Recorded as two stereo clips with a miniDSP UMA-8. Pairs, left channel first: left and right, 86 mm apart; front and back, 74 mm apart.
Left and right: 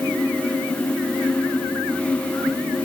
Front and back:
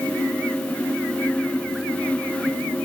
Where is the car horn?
No car horn in this recording.